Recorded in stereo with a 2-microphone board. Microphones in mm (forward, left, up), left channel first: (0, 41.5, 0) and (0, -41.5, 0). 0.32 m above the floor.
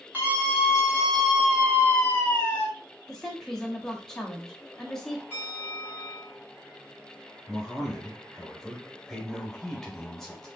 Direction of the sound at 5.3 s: 20° right (ahead or behind).